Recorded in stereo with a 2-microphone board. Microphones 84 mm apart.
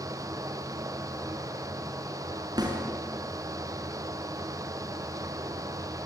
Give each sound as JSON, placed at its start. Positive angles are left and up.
{"t": 2.6, "sound": "a snare drum", "side_deg": -55, "distance_m": 5.5}